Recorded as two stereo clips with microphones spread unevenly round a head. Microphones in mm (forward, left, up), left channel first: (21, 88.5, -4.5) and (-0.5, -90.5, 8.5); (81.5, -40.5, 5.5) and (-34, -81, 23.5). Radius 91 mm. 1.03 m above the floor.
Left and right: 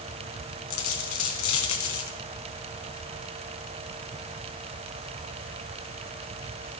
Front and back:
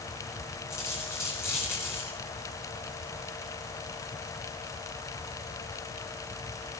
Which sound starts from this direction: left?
A dropped coin, at 0.7 s.